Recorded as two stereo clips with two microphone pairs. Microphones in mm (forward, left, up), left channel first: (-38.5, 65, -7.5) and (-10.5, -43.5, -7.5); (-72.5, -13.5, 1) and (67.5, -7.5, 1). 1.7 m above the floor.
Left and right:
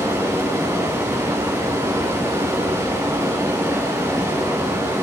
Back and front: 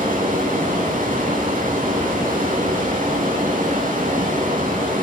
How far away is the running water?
About 8.5 m.